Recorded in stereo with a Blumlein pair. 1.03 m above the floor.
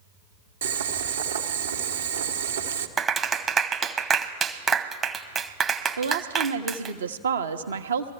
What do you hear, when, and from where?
0.6 s boiling: 70° right, 1.1 m
3.0 s a clap: 20° right, 0.9 m
6.0 s a woman speaking: 70° right, 1.0 m